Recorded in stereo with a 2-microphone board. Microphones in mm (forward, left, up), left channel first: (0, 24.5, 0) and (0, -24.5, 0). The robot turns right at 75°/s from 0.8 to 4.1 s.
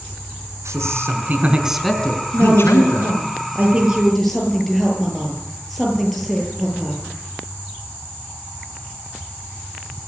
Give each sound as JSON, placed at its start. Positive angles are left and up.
{"t": 0.7, "sound": "a man speaking", "azimuth_deg": -75, "distance_m": 4.0}
{"t": 2.3, "sound": "a woman speaking", "azimuth_deg": -130, "distance_m": 8.5}